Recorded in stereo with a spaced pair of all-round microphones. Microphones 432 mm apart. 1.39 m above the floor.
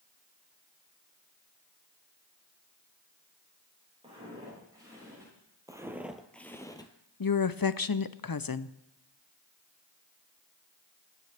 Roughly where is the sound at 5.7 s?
Centre.